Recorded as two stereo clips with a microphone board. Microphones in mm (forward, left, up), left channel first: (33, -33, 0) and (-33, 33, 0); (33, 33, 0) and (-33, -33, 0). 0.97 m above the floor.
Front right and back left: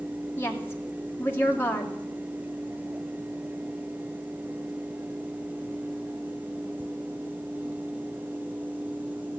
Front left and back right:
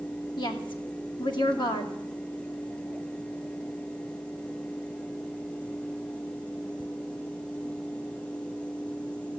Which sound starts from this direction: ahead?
A woman speaking, at 0.4 s.